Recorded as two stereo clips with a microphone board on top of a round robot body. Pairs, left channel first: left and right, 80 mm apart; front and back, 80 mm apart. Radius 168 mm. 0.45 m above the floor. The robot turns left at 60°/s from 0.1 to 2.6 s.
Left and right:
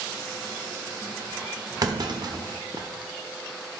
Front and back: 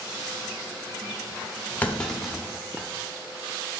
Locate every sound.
1.8 s a clunk: 65° right, 1.2 m; by 2.9 s 115° right, 1.2 m